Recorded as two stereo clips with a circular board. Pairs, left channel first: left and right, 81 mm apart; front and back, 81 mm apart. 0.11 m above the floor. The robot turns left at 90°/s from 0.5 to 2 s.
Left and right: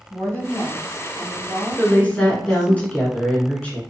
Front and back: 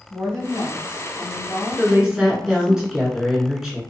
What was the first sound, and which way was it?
A woman speaking, 140° left.